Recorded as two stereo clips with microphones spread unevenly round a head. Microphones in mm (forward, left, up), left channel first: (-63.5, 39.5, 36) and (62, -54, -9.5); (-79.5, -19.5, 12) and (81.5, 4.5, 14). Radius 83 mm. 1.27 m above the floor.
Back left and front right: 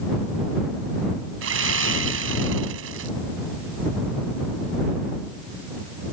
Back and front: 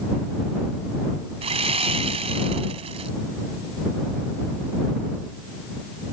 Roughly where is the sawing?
Ahead right.